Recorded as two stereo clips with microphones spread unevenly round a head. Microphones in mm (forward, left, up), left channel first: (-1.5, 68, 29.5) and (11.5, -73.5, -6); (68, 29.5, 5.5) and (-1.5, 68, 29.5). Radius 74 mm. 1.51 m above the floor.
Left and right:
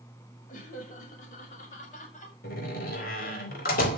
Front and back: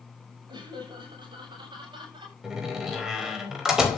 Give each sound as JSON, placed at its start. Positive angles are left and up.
{"t": 0.5, "sound": "laughter", "azimuth_deg": 130, "distance_m": 6.0}
{"t": 2.4, "sound": "a door slam", "azimuth_deg": 70, "distance_m": 4.5}